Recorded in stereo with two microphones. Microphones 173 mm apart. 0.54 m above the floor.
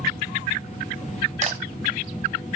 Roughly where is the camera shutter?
Right.